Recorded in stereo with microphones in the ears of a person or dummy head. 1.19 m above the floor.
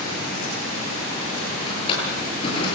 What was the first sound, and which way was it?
A drawer, 25° left (ahead or behind).